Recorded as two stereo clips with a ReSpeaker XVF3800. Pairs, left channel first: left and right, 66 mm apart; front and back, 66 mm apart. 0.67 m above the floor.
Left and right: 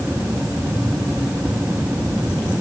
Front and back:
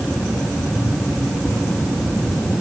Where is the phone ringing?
I don't hear a phone ringing.